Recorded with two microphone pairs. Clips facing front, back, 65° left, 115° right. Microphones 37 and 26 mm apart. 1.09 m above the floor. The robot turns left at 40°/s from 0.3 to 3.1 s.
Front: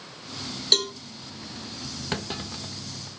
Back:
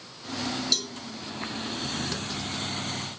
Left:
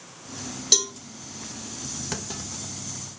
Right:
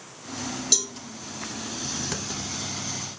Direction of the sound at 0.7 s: Straight ahead.